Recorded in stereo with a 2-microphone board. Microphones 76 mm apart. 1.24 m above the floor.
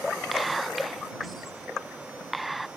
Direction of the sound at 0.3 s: Centre (ahead or behind).